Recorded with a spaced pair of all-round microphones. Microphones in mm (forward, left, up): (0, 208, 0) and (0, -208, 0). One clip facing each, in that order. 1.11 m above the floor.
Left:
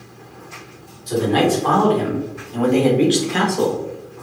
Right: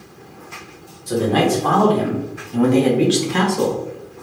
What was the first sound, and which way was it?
A man speaking, 65° right (ahead or behind).